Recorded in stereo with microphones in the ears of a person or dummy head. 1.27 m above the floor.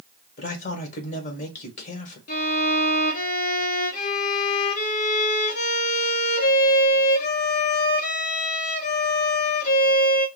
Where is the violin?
50° left (ahead or behind), 1.0 m.